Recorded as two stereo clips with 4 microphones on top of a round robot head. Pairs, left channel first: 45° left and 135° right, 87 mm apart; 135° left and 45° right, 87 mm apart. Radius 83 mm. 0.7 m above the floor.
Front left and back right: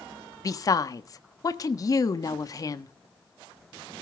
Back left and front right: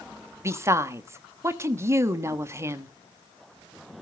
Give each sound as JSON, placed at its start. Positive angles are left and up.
{"t": 0.4, "sound": "a woman speaking", "azimuth_deg": 5, "distance_m": 1.3}